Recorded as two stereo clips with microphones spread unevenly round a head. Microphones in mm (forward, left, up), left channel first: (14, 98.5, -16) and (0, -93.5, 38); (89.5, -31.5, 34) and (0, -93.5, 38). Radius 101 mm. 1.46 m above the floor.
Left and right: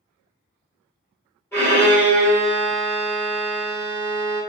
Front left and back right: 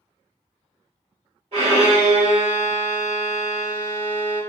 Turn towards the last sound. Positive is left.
turn(degrees=180)